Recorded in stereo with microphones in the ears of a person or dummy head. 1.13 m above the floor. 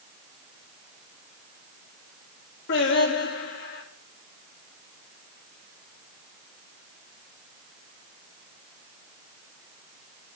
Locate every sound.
2.7 s singing: 55° left (ahead or behind), 2 m